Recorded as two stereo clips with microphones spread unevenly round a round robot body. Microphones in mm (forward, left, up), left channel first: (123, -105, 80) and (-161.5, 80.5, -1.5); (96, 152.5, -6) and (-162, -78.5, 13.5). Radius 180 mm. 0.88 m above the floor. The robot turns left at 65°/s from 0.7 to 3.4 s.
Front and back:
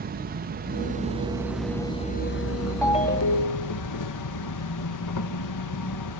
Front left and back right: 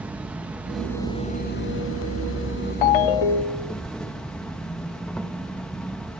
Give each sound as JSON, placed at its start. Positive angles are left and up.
{"t": 0.0, "sound": "an insect", "azimuth_deg": 135, "distance_m": 1.5}
{"t": 2.8, "sound": "a ringtone", "azimuth_deg": 50, "distance_m": 0.5}